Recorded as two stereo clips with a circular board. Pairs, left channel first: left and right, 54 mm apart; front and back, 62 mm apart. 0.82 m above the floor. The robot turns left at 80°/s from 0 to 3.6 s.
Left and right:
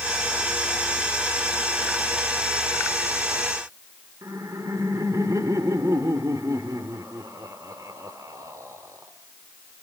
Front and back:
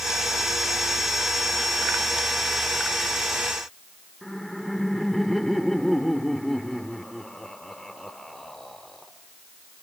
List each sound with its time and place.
4.2 s laughter: 90° right, 2 m